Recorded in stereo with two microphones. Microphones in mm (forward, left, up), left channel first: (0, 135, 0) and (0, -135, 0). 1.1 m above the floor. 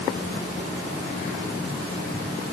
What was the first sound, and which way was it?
Only background noise.